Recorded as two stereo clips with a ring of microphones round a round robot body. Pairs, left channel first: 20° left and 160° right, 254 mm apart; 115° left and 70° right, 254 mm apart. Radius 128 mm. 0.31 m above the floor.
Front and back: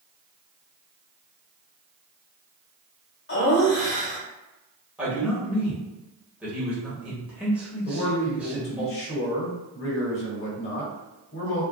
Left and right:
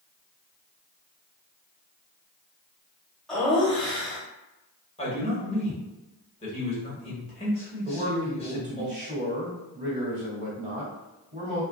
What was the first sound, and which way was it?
Laughter, 25° left.